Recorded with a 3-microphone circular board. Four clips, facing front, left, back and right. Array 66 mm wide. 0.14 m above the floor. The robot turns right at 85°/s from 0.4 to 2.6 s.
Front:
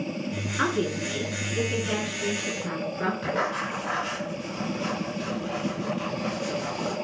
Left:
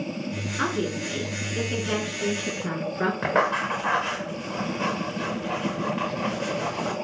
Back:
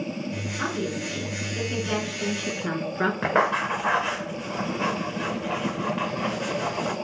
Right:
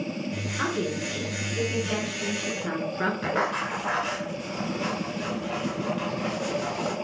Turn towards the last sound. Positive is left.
turn(degrees=150)